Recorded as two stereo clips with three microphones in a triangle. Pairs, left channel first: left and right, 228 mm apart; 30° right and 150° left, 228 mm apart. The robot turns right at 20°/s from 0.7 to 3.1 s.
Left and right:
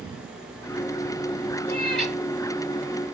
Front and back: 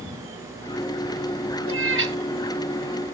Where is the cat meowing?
170° left, 1.1 m; by 2.1 s straight behind, 1.1 m.